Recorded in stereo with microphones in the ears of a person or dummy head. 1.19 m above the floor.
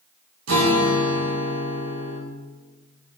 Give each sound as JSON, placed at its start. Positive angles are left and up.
{"t": 0.5, "sound": "a guitar", "side_deg": -80, "distance_m": 0.8}